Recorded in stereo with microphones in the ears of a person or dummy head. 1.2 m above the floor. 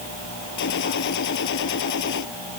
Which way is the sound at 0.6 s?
65° left (ahead or behind).